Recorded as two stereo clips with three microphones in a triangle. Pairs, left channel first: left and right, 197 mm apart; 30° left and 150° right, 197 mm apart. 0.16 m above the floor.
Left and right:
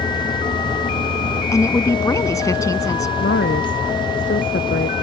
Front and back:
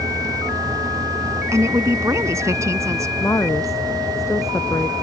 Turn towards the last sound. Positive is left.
turn(degrees=105)